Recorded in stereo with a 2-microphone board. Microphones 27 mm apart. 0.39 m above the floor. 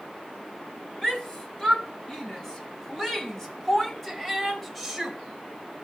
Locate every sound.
1.0 s a shout: 25° left (ahead or behind), 3.5 m; by 5.2 s centre (ahead or behind), 1.6 m